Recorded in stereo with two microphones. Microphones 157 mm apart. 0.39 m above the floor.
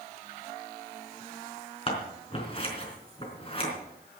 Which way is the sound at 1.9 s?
35° left (ahead or behind).